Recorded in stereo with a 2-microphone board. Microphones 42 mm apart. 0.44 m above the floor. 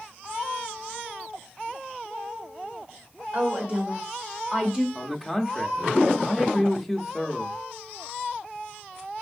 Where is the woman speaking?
45° right (ahead or behind), 1.9 m; by 4.8 s 20° right (ahead or behind), 1.7 m.